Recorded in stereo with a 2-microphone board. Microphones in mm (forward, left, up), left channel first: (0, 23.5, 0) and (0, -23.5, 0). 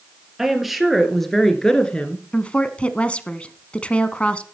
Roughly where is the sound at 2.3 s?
Left.